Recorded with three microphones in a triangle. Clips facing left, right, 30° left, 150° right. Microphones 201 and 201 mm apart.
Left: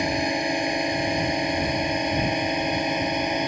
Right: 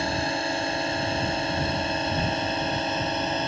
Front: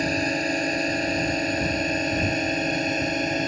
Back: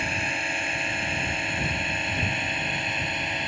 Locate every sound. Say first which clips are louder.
0.0 s a drone: left 3 dB, front 9 dB; 25° left; by 3.5 s 20° left